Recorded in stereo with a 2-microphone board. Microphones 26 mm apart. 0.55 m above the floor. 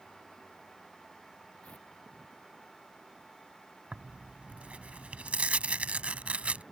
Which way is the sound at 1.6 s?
60° left (ahead or behind).